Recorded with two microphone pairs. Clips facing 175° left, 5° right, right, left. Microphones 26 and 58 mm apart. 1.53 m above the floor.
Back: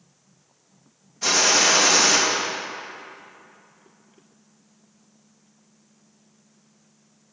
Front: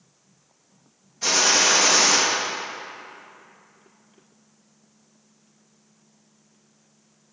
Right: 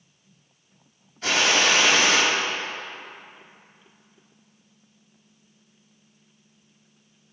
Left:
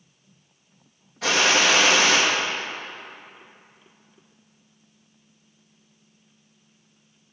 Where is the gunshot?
85° left, 2.5 m.